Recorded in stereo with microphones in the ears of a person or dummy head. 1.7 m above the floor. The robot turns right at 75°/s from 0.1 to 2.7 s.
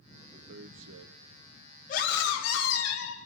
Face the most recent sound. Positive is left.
turn(degrees=95)